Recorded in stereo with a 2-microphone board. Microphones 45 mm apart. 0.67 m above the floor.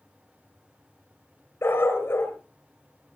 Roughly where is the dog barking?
Left.